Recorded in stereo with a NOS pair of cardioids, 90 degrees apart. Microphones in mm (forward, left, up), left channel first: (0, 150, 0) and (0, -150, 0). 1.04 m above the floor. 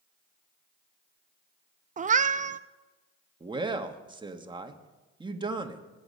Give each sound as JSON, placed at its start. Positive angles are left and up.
{"t": 2.0, "sound": "a cat meowing", "azimuth_deg": -25, "distance_m": 0.5}
{"t": 3.4, "sound": "a man speaking", "azimuth_deg": -15, "distance_m": 1.5}